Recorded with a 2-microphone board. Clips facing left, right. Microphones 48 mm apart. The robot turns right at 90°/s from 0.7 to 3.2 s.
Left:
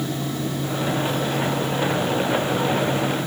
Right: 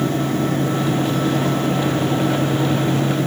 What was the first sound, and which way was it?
Only background noise.